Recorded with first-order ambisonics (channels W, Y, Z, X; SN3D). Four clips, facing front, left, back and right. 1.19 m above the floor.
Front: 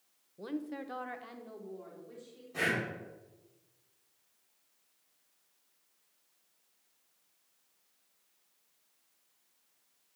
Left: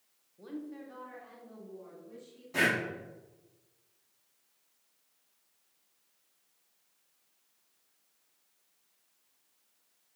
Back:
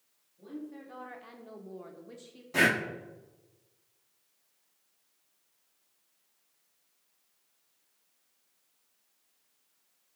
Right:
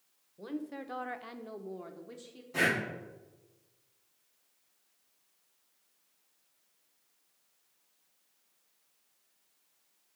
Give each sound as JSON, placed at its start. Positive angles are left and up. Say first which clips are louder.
{"t": 0.4, "sound": "a woman speaking", "louder": "right 3 dB, front 4 dB", "azimuth_deg": -25, "distance_m": 1.0}
{"t": 2.5, "sound": "breathing", "louder": "left 1 dB, back 7 dB", "azimuth_deg": 165, "distance_m": 1.1}